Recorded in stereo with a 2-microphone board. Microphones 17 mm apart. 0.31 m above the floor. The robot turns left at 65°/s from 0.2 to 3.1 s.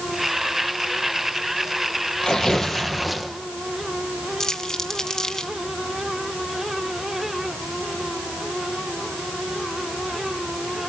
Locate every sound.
2.2 s tearing paper: 50° left, 3.5 m; by 3.3 s 5° right, 3.5 m
4.4 s crumpling: 40° left (ahead or behind), 2.5 m